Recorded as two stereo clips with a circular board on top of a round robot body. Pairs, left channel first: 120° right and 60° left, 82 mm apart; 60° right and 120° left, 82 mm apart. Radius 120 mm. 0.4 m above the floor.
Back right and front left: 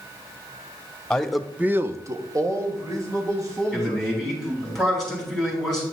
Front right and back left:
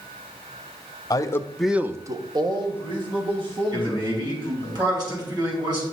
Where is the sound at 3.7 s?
155° left, 5.5 m.